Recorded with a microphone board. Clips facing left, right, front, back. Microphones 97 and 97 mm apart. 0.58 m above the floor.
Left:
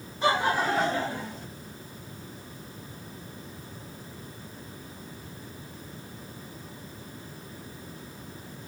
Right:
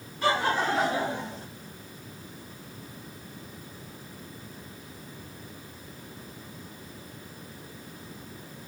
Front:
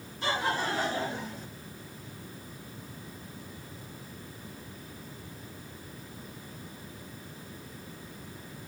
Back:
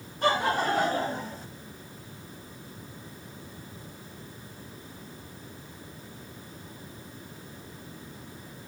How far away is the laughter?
About 1.2 m.